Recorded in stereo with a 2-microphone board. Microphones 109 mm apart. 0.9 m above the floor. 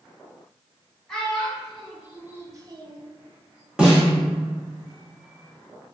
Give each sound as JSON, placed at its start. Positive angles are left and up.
{"t": 1.1, "sound": "a child speaking", "side_deg": 5, "distance_m": 1.3}
{"t": 3.8, "sound": "a snare drum", "side_deg": -10, "distance_m": 1.3}